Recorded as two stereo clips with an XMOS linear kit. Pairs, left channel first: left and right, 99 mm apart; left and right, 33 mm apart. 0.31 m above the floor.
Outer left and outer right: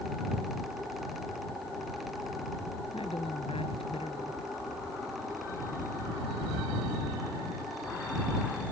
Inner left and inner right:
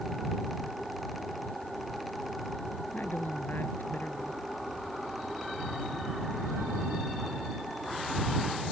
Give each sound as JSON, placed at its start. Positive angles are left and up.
{"t": 2.9, "sound": "a woman speaking", "side_deg": 70}